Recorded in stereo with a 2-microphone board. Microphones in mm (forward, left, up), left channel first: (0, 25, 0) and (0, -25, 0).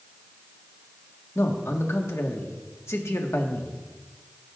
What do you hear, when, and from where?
1.4 s a man speaking: 70° left (ahead or behind), 1.5 m